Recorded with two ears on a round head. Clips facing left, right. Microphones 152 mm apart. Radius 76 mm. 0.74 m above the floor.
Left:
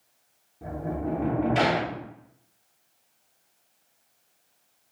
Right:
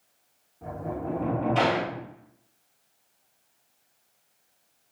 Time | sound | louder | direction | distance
0.6 | a sliding door | left 2 dB | 20° left (ahead or behind) | 0.7 m